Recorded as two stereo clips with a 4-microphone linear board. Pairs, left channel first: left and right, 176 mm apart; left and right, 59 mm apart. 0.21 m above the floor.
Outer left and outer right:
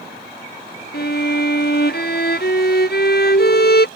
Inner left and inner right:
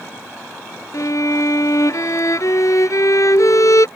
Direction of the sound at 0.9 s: 70° left (ahead or behind).